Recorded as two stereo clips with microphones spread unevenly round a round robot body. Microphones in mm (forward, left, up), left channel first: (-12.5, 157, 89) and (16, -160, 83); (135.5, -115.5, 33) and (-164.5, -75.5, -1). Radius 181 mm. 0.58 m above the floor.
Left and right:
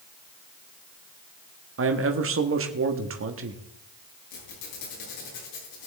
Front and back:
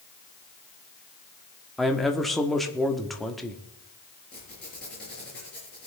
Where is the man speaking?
105° right, 1.4 m.